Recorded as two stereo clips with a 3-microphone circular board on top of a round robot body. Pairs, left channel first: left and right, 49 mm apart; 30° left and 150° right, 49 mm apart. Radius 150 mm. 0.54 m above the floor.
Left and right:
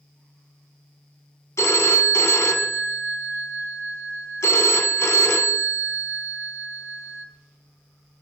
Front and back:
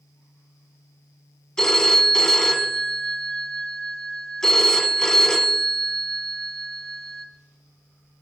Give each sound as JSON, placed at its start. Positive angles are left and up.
{"t": 1.6, "sound": "a phone ringing", "azimuth_deg": 105, "distance_m": 1.4}